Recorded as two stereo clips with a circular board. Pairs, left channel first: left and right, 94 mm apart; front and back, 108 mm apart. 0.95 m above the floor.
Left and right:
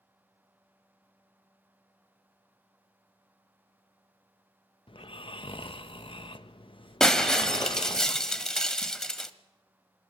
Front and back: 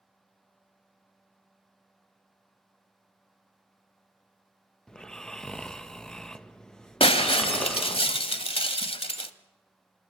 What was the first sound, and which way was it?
Snoring, 85° left.